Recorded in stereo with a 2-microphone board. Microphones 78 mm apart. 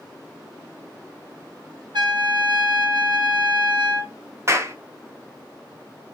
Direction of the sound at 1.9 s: 80° right.